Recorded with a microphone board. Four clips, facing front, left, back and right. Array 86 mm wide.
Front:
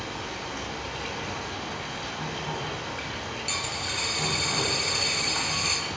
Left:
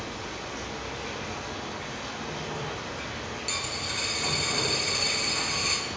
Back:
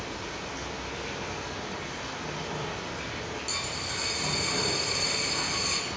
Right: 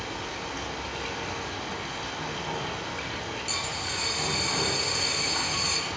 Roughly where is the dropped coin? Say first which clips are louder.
Right 1 dB, front 2 dB; ahead left.